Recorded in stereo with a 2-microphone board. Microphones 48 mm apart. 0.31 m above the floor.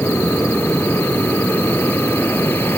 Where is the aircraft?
50° left (ahead or behind).